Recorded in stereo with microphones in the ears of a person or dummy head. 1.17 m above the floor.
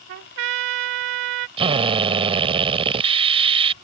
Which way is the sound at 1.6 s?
30° right (ahead or behind).